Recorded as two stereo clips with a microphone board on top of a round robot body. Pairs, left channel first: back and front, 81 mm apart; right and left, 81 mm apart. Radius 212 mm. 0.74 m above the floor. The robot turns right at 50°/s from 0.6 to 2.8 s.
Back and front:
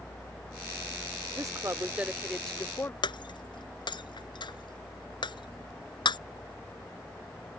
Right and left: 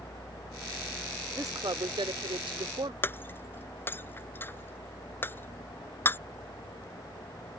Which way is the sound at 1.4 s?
40° left.